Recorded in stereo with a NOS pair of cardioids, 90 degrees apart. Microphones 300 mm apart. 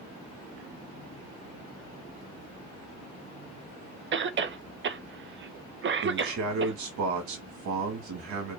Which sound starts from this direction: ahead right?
A cough, at 4.1 s.